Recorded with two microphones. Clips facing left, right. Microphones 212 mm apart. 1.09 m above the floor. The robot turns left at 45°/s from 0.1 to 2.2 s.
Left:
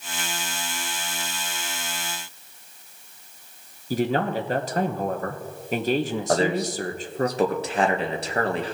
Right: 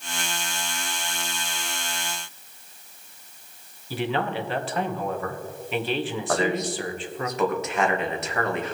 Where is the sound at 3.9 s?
40° left (ahead or behind), 0.9 m.